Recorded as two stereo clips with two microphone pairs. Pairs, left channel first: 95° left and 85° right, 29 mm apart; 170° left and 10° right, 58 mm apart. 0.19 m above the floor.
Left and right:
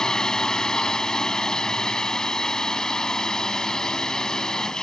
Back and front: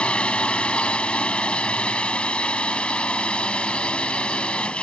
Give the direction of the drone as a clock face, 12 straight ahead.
8 o'clock.